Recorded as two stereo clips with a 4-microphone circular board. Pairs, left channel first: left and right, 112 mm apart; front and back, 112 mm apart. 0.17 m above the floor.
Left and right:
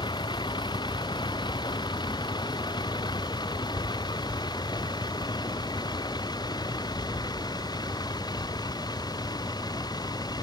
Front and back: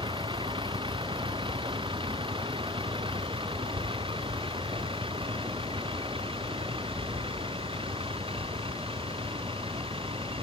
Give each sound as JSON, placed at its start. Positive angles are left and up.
{"t": 0.0, "sound": "a vehicle", "azimuth_deg": 135}